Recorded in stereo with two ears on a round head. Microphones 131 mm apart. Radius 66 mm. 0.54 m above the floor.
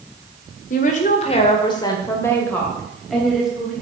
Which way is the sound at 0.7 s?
60° left (ahead or behind).